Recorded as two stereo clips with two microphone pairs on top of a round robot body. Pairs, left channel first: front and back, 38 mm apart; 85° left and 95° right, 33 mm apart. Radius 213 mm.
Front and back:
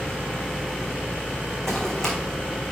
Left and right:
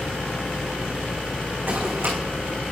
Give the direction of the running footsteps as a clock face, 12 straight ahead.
3 o'clock.